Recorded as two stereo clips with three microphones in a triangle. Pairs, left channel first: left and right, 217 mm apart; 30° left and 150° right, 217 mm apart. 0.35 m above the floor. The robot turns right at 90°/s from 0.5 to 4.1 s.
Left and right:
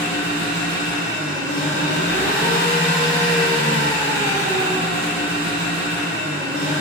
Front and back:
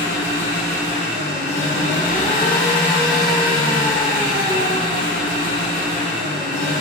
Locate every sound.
0.0 s an engine running: 75° right, 1.3 m; by 6.8 s 110° right, 1.3 m